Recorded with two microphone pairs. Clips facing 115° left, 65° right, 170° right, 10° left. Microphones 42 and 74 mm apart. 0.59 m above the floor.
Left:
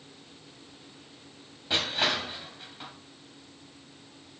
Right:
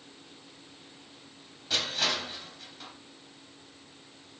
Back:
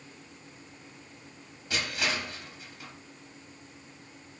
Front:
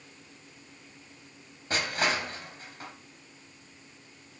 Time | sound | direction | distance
1.7 | crushing | 55° left | 3.5 m